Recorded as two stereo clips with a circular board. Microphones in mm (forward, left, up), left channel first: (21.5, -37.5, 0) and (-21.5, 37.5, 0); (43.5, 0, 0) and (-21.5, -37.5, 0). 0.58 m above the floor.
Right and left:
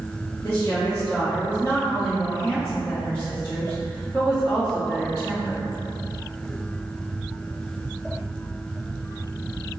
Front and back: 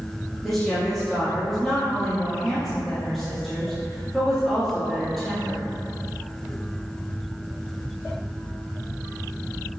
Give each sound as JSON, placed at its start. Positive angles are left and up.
{"t": 0.4, "sound": "a woman speaking", "azimuth_deg": -45, "distance_m": 1.3}